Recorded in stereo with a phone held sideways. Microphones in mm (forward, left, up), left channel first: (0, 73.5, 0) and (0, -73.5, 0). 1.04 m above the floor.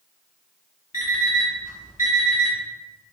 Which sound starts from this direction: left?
An alarm clock, at 0.9 s.